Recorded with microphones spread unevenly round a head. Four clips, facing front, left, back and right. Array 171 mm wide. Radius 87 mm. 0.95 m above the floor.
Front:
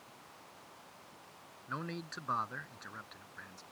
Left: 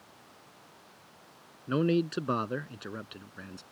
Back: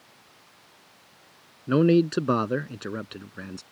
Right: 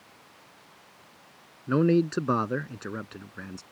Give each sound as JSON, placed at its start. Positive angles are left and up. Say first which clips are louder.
{"t": 1.7, "sound": "a man speaking", "louder": "right 5 dB, back 23 dB", "azimuth_deg": -165}